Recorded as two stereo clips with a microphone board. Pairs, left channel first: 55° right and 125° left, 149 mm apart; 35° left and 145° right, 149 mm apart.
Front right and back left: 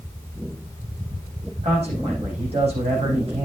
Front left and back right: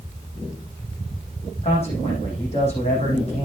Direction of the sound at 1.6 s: 80° left.